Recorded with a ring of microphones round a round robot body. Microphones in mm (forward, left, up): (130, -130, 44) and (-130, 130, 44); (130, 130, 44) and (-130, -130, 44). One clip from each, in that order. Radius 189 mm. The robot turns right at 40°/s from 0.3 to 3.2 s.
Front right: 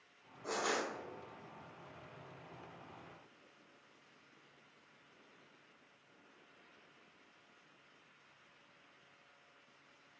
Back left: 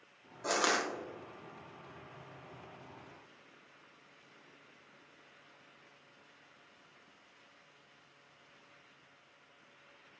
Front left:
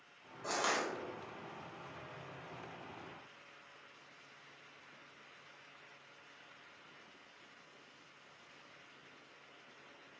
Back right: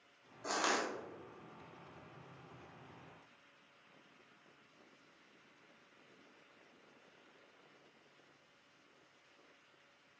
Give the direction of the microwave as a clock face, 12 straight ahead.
No microwave in this recording.